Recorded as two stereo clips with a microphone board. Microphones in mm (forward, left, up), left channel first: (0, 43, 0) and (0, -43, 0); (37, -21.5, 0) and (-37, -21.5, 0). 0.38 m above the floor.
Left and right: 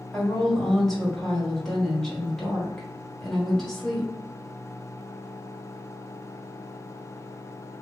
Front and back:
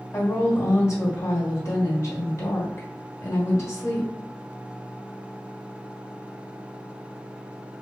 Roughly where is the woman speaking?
Ahead.